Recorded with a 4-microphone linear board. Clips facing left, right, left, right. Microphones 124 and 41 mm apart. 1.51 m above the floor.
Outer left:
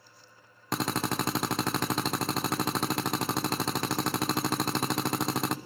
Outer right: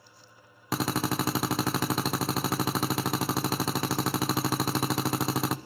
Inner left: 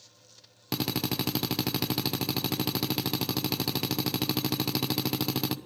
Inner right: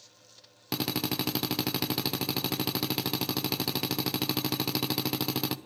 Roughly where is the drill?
Centre.